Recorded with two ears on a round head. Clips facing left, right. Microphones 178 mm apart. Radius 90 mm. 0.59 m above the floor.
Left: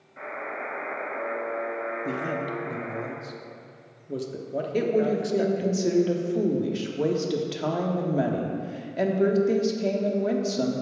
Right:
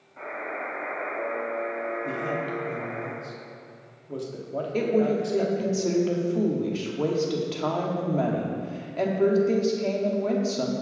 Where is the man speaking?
20° left (ahead or behind), 0.8 m.